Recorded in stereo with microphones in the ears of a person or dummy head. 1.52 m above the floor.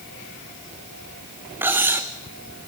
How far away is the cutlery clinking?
About 0.9 m.